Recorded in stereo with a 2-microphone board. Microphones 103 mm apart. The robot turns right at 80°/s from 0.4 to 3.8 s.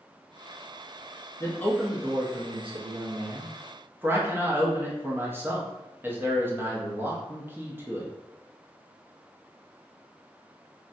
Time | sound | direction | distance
1.4 | a man speaking | 145° left | 0.5 m